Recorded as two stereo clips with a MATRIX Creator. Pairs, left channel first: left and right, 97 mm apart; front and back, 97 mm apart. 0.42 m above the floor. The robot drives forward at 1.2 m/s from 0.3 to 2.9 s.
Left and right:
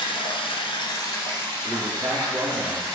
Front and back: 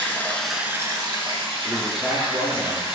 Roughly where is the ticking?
I don't hear ticking.